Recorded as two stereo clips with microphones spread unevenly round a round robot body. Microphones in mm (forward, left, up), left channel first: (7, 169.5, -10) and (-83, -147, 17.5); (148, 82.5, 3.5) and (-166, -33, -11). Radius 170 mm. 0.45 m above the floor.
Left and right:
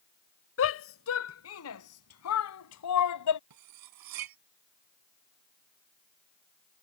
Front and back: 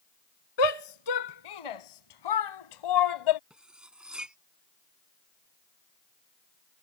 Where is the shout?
20° left; by 3.4 s 35° left.